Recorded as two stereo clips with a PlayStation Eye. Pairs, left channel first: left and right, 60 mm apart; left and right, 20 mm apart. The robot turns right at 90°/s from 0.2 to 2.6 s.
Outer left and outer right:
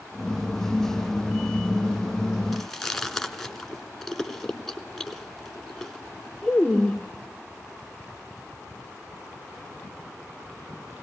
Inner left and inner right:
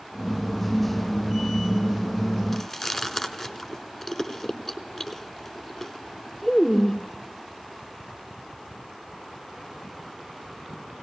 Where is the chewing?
Centre (ahead or behind), 0.8 m; by 7.0 s 5° left (ahead or behind), 0.8 m.